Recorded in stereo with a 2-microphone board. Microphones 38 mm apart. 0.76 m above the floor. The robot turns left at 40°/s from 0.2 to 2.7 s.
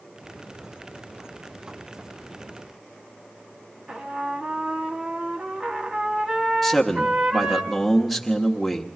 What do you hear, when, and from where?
3.9 s a trumpet: 30° right (ahead or behind), 1.0 m
6.6 s a man speaking: centre (ahead or behind), 1.2 m